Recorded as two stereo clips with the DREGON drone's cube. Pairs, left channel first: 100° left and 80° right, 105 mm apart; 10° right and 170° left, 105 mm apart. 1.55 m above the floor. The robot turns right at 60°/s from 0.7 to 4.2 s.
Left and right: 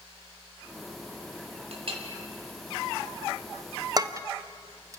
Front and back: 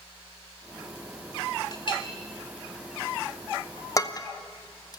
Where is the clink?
60° right, 2.5 m; by 2.0 s 40° right, 2.5 m.